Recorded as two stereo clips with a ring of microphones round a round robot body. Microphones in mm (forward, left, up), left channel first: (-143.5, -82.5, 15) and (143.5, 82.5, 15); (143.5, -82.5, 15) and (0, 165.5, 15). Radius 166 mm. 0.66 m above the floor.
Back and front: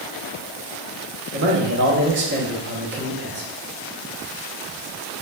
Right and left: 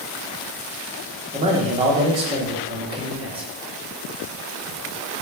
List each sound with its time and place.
1.3 s a man speaking: 60° left, 0.9 m